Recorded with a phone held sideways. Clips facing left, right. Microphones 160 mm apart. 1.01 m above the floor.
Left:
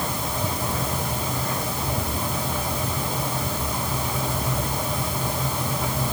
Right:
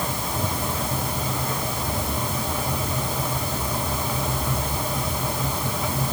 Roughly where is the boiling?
No boiling in this recording.